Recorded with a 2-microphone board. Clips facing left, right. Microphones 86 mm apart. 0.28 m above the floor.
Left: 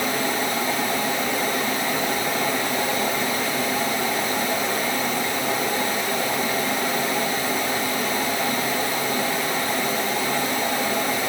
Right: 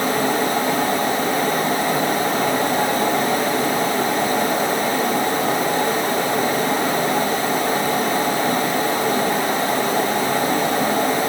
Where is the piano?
No piano in this recording.